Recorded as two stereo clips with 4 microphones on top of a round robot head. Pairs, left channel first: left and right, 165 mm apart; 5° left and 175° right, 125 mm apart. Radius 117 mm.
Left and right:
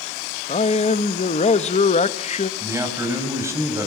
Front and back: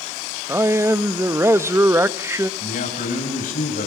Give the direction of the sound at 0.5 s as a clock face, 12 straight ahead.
8 o'clock.